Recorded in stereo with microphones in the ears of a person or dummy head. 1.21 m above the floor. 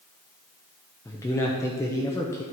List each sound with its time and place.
1.1 s a man speaking: 15° left (ahead or behind), 1.0 m